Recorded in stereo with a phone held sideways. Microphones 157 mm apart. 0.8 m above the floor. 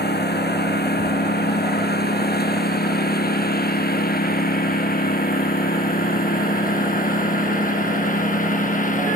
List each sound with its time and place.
0.0 s a lawn mower: 80° left; by 9.2 s 55° left (ahead or behind)